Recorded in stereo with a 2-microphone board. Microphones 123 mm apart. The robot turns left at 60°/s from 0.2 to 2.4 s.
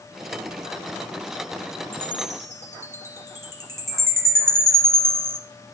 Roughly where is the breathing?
I don't hear breathing.